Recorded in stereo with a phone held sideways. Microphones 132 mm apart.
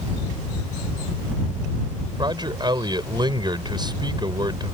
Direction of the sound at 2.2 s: 35° right (ahead or behind).